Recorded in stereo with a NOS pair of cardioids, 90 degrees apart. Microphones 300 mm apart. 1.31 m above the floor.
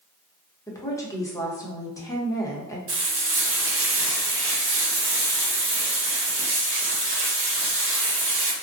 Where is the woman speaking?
10° left, 0.8 m.